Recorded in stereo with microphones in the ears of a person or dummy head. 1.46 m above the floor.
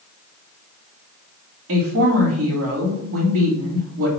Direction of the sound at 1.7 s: 65° right (ahead or behind).